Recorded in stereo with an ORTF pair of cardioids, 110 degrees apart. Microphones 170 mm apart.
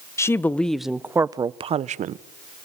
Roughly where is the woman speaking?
Ahead.